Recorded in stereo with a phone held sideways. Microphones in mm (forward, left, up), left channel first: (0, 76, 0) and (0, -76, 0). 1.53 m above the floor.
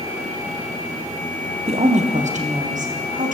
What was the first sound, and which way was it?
A woman speaking, 40° right (ahead or behind).